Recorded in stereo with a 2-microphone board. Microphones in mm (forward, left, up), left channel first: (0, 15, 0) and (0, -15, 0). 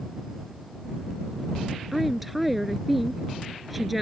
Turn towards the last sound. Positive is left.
turn(degrees=-5)  # may be behind; listen again after turning